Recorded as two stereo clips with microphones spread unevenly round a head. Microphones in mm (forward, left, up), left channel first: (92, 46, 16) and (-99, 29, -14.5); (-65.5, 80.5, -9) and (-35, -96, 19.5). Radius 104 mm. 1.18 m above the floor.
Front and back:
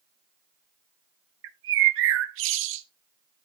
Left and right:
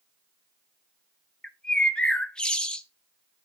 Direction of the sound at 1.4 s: Straight behind.